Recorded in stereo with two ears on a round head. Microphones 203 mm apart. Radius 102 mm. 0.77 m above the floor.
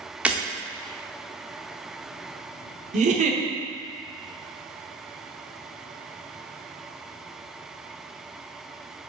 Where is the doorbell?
I don't hear a doorbell.